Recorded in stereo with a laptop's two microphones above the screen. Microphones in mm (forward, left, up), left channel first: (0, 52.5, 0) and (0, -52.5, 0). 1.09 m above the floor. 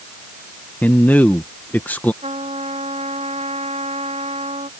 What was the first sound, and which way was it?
A man speaking, 15° left (ahead or behind).